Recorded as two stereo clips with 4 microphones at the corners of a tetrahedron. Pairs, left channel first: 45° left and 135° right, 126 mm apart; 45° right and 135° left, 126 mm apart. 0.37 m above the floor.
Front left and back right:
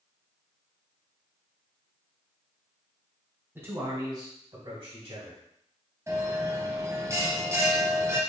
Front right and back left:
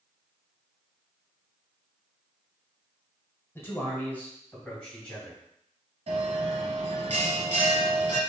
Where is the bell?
160° left, 0.8 m.